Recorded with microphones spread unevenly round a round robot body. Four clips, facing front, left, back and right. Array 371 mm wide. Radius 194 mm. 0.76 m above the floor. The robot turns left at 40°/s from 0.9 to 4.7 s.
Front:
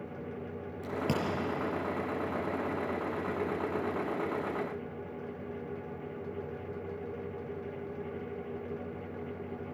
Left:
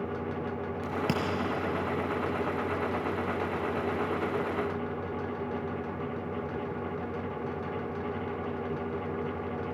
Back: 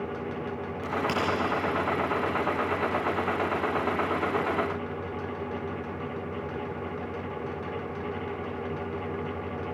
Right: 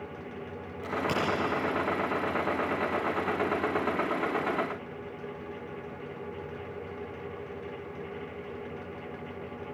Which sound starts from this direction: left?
A crack, at 0.8 s.